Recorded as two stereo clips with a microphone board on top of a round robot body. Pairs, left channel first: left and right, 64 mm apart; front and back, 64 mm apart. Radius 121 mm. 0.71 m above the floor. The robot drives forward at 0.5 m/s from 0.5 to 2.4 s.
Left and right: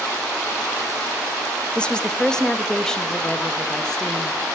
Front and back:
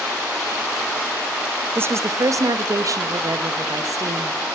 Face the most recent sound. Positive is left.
turn(degrees=170)